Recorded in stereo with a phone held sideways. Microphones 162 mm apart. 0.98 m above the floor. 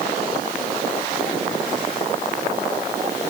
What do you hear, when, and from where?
Only background noise.